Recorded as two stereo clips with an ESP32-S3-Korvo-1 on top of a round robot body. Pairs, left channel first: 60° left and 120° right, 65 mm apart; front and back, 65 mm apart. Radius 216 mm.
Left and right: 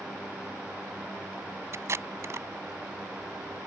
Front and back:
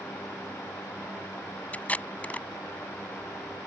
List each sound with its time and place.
1.7 s tape being pulled: 70° right